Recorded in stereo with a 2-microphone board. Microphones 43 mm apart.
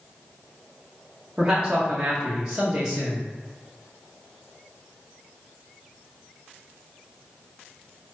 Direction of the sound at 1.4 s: 15° right (ahead or behind).